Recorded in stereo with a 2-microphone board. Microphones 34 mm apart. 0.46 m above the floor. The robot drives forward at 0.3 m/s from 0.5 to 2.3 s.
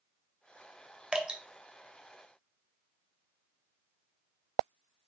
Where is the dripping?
20° right (ahead or behind), 0.8 m; by 1.4 s 25° right (ahead or behind), 0.7 m.